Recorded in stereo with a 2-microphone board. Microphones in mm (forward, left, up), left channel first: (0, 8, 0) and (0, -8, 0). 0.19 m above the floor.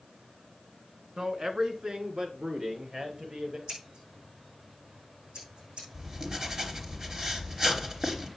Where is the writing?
45° right (ahead or behind), 3 m.